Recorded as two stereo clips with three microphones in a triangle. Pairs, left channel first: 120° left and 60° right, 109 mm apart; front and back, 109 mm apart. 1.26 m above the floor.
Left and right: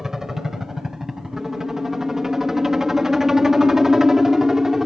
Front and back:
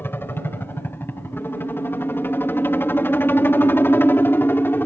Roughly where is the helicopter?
Ahead.